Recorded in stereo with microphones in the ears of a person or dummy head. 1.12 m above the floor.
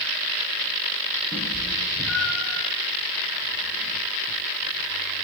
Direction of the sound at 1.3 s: Centre (ahead or behind).